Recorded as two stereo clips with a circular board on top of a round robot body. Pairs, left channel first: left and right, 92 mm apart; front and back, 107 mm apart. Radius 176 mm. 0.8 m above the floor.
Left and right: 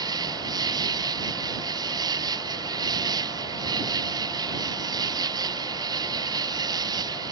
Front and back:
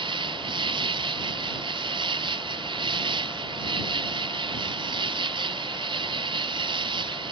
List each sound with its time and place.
0.0 s an insect: 140° right